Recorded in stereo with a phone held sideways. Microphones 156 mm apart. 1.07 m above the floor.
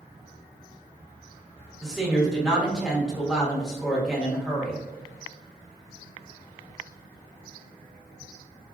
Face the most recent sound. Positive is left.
turn(degrees=-5)  # may be behind; listen again after turning